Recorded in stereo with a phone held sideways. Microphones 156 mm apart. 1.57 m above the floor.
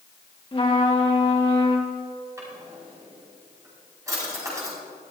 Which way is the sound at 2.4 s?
20° right (ahead or behind).